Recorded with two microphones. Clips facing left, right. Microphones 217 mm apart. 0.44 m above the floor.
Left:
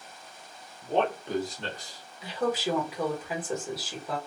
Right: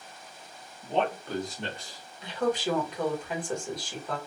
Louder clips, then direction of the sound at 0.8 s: Left 1 dB; 50° left (ahead or behind).